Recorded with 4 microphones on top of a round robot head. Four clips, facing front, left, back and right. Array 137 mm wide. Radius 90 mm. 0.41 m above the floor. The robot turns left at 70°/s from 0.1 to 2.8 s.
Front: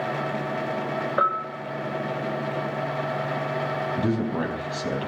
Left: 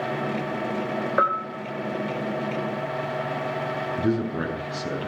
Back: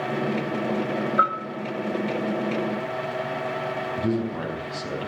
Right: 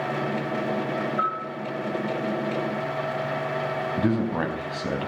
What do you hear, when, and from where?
1.2 s a bell: 55° left, 8 m; by 1.4 s 40° left, 8 m
4.0 s a man speaking: 75° right, 4.5 m